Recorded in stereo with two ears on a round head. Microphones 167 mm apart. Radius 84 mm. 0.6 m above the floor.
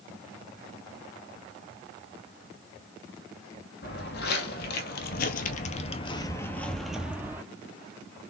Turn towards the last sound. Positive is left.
turn(degrees=-15)  # may be behind; listen again after turning